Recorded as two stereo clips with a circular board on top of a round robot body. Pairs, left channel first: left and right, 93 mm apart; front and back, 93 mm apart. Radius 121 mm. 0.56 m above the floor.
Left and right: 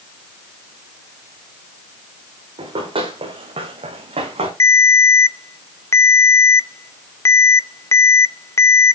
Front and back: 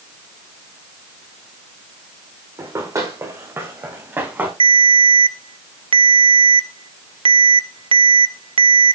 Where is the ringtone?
150° left, 1.0 m.